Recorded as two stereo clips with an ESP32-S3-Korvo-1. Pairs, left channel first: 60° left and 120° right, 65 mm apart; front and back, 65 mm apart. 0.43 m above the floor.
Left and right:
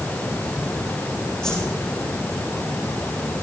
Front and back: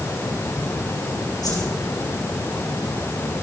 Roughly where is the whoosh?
Ahead.